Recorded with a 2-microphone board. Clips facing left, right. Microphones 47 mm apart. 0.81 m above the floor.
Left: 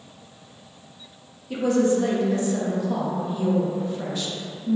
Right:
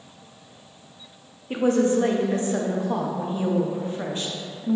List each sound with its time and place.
1.5 s a woman speaking: 35° right (ahead or behind), 0.6 m